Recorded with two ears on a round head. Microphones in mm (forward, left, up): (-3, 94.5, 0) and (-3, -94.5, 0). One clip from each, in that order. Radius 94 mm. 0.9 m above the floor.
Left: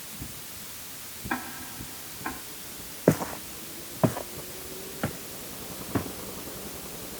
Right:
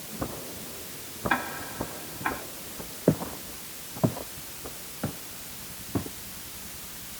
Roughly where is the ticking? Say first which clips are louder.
Right 4 dB; right.